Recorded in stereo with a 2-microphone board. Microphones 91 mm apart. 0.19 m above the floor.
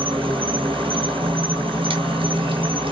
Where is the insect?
80° right, 1.0 m.